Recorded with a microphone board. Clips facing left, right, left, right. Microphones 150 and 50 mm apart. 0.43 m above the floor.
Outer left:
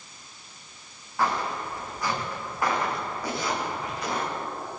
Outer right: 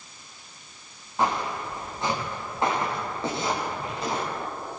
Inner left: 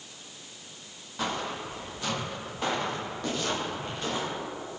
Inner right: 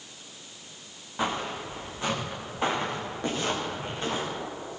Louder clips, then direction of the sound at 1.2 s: Outer right 1 dB, inner right 2 dB; 20° right (ahead or behind).